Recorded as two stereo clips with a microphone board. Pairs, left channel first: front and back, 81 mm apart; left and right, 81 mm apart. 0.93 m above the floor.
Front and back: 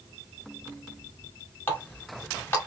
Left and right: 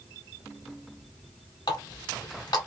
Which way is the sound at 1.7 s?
65° left.